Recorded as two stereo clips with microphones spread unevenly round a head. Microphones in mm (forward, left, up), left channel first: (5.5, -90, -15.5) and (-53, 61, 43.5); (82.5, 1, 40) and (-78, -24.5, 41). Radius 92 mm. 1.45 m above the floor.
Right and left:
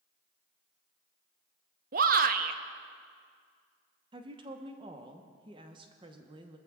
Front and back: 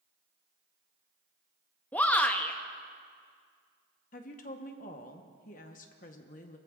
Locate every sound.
1.9 s a shout: 90° left, 0.7 m
4.1 s a woman speaking: 55° left, 0.9 m